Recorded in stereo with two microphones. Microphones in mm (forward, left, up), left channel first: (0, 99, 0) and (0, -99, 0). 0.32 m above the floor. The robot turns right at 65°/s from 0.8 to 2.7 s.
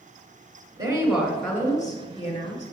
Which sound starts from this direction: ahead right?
A woman speaking, at 0.8 s.